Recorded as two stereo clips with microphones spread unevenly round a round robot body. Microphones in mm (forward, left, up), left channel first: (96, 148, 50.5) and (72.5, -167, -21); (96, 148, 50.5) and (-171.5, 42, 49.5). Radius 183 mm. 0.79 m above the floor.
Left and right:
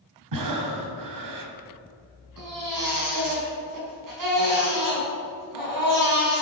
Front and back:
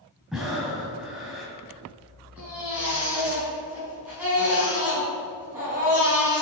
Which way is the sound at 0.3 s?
70° right.